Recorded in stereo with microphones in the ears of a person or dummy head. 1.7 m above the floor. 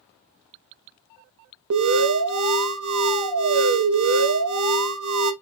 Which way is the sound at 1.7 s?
85° right.